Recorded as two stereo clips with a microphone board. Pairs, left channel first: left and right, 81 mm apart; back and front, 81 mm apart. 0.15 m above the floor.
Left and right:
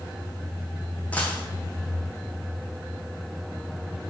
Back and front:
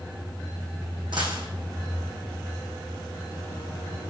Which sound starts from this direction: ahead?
A dropped coin, at 1.1 s.